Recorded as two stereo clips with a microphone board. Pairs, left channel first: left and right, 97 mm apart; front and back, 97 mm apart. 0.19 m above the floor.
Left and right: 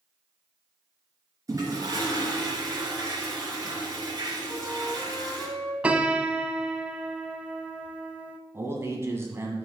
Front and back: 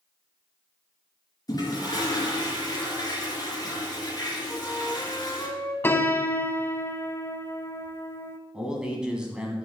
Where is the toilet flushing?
45° right, 3 m.